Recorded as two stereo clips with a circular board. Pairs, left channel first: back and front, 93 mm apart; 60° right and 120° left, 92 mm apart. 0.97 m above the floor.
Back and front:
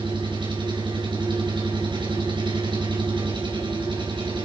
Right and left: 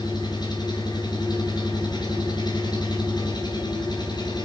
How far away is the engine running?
About 4 m.